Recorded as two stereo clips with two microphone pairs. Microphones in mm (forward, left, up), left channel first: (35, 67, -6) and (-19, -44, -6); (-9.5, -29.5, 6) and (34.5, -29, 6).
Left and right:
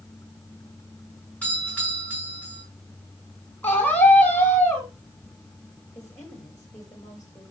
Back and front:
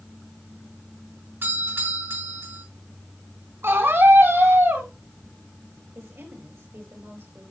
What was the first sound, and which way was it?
A doorbell, 15° right.